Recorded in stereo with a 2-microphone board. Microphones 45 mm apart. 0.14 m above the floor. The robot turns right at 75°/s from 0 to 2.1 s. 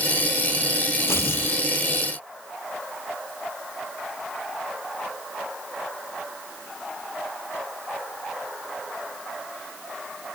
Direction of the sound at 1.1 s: 75° left.